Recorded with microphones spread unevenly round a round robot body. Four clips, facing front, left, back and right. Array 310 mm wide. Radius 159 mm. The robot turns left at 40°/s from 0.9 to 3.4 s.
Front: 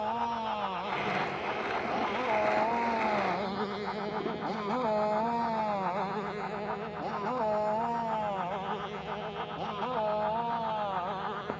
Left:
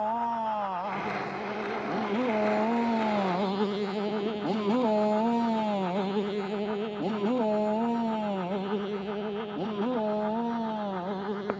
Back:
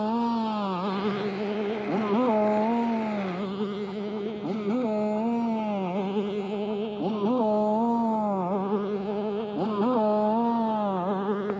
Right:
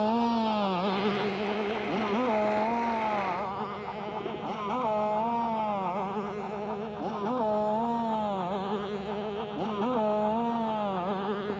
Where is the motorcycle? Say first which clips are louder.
Right 2 dB, back 6 dB; 145° right; by 11.6 s straight behind.